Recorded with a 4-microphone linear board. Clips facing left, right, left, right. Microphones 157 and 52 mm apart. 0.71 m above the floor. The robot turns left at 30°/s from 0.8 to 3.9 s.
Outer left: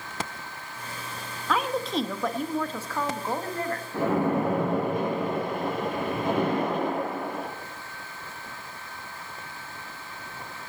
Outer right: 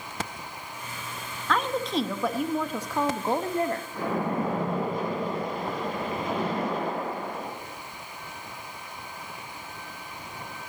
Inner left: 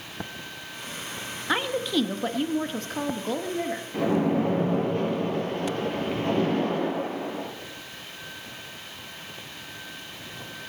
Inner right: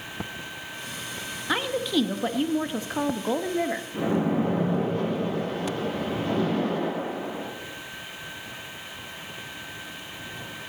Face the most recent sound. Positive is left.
turn(degrees=60)  # may be behind; listen again after turning